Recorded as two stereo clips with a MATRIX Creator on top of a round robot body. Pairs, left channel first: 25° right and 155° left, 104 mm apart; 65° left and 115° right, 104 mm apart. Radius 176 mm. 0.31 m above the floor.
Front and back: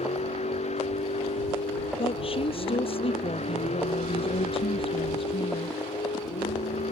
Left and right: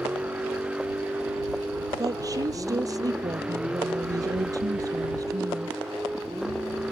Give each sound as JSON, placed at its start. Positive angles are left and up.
{"t": 0.0, "sound": "a vehicle", "azimuth_deg": -30}
{"t": 2.0, "sound": "a woman speaking", "azimuth_deg": -55}